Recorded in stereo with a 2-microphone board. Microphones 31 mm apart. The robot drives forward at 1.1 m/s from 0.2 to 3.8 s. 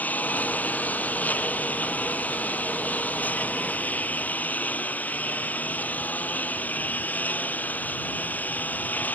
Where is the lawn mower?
65° left (ahead or behind); by 9.1 s 70° left (ahead or behind).